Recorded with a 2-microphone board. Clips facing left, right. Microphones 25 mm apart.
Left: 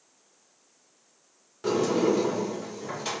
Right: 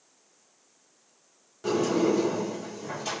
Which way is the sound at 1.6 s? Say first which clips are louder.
Left 1 dB; 15° left (ahead or behind).